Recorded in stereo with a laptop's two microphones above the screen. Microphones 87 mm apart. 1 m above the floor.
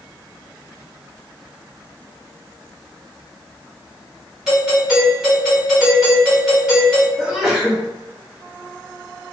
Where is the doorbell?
10° right (ahead or behind), 1.3 m.